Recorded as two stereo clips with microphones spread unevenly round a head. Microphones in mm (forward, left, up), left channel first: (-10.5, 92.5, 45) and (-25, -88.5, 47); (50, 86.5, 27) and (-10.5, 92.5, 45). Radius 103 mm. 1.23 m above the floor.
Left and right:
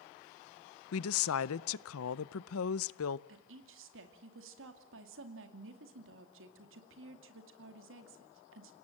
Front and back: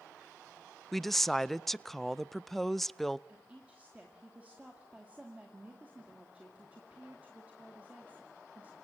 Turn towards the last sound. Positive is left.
turn(degrees=-105)